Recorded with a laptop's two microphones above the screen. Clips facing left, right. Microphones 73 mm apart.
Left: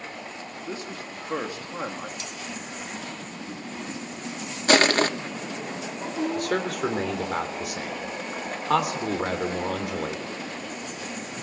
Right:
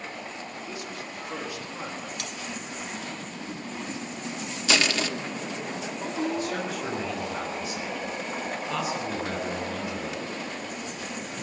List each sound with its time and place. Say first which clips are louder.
0.6 s a man speaking: left 5 dB; 35° left (ahead or behind), 2 m
2.2 s cutlery clinking: right 1 dB; 65° right (ahead or behind), 1.8 m
4.7 s crushing: left 7 dB; 45° left (ahead or behind), 1.0 m
6.3 s a man speaking: left 3 dB; 65° left (ahead or behind), 3 m